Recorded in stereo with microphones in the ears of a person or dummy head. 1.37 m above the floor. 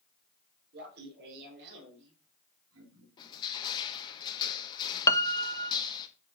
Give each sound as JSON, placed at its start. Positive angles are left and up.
{"t": 0.7, "sound": "laughter", "side_deg": -55, "distance_m": 4.0}
{"t": 3.2, "sound": "crushing", "side_deg": 30, "distance_m": 1.5}
{"t": 5.1, "sound": "a piano", "side_deg": 20, "distance_m": 0.7}